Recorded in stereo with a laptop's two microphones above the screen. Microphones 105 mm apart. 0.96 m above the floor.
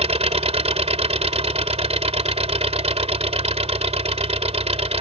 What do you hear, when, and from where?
0.0 s an engine running: 85° right